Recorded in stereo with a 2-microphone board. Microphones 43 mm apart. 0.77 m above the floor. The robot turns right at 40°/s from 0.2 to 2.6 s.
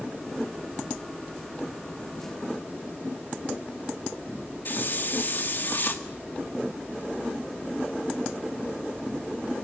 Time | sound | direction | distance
4.7 | a hiss | 45° left (ahead or behind) | 1.7 m